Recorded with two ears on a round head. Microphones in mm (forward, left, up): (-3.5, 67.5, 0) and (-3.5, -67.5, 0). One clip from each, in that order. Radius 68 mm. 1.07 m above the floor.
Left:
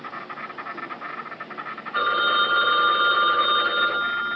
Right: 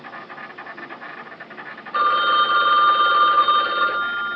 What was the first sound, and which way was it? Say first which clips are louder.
An insect: left 1 dB; 5° right (ahead or behind).